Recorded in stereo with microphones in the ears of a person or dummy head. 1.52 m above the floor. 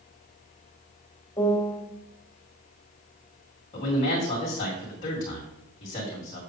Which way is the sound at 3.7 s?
35° left (ahead or behind).